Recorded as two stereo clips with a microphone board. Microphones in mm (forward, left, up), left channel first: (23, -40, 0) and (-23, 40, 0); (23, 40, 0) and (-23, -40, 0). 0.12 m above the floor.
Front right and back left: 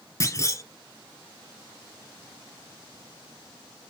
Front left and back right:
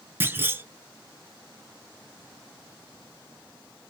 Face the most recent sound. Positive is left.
turn(degrees=-70)